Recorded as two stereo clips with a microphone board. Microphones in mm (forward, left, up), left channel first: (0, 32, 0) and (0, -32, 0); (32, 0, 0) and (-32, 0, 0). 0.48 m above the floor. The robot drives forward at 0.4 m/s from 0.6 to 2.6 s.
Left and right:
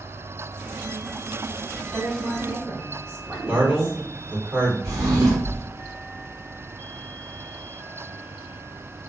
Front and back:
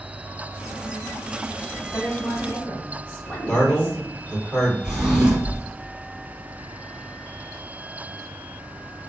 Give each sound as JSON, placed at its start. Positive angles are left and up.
{"t": 1.9, "sound": "a woman speaking", "azimuth_deg": -50, "distance_m": 1.8}
{"t": 3.5, "sound": "a man speaking", "azimuth_deg": -65, "distance_m": 1.8}
{"t": 4.8, "sound": "a drawer", "azimuth_deg": -105, "distance_m": 1.2}